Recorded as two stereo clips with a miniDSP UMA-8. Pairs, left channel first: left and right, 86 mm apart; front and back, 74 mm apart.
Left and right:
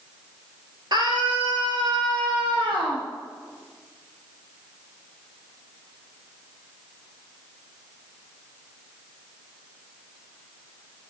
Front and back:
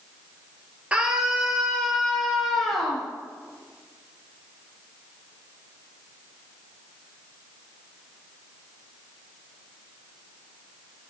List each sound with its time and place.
0.9 s a scream: 110° right, 2.5 m; by 3.0 s 90° right, 4.5 m